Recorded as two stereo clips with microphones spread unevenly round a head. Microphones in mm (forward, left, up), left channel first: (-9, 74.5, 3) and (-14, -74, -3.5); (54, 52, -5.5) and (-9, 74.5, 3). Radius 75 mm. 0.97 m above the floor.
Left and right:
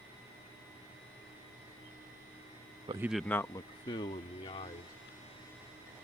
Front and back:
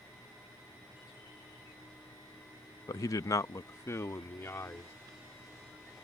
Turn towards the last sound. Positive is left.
turn(degrees=35)